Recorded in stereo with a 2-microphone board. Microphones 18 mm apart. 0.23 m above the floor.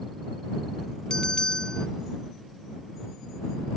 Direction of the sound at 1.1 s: 40° left (ahead or behind).